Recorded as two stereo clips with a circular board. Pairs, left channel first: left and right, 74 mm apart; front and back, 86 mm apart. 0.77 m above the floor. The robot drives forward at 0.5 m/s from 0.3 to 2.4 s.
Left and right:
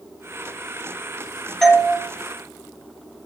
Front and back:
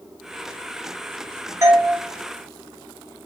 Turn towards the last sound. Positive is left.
turn(degrees=175)